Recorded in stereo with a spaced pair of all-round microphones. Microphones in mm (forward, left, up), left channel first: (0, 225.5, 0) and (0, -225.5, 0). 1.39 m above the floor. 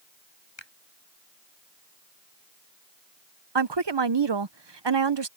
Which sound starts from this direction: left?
A finger snap, at 0.6 s.